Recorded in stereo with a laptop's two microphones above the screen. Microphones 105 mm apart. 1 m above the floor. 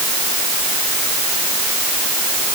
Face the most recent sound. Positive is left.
No sound to turn to.